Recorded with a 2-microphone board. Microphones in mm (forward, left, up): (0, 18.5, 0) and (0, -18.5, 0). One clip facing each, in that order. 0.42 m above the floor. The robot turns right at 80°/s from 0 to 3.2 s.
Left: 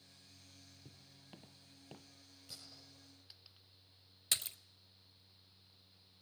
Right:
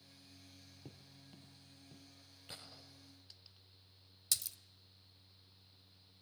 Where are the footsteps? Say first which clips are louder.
Right 3 dB; 40° right (ahead or behind), 0.6 m; by 2.4 s 20° left (ahead or behind), 1.5 m.